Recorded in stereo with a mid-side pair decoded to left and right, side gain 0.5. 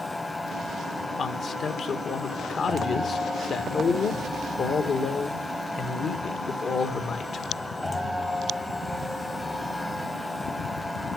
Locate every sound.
0.0 s a machine running: 10° left, 1.1 m
1.2 s a man speaking: 50° left, 1.7 m